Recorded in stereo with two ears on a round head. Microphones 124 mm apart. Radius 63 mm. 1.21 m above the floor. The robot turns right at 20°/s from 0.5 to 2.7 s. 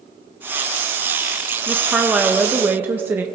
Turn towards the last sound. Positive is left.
turn(degrees=-15)  # may be behind; listen again after turning